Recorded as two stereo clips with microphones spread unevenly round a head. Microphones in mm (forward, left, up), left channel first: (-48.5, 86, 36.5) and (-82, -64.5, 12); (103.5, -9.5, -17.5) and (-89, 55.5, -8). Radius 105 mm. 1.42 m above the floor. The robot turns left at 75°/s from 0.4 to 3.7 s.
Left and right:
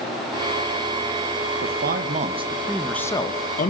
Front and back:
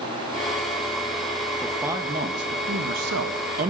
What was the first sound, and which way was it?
A man speaking, 100° right.